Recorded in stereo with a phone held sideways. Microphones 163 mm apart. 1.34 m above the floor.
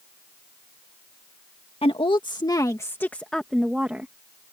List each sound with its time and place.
1.8 s a woman speaking: 35° left (ahead or behind); by 4.1 s 10° right (ahead or behind)